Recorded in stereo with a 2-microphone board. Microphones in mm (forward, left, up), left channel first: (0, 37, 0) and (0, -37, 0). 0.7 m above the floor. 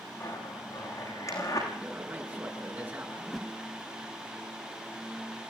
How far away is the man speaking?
About 7.5 m.